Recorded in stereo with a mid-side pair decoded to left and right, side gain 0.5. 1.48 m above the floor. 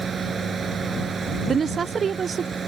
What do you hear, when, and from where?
0.0 s a fan: 35° right
1.5 s a woman speaking: 35° right